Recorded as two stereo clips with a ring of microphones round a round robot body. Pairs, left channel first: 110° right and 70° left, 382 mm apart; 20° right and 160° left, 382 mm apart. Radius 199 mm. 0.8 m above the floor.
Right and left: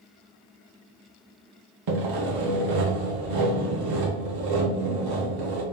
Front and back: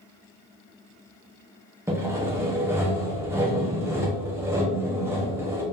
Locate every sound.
1.9 s sawing: 75° left, 1.1 m